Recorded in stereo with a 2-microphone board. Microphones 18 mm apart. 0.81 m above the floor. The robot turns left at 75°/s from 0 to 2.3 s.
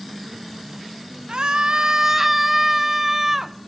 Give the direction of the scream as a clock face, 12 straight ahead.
3 o'clock.